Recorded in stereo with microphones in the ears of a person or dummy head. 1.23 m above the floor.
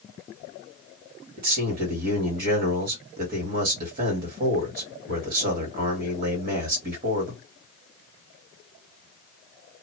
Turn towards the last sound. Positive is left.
turn(degrees=-45)  # may be behind; listen again after turning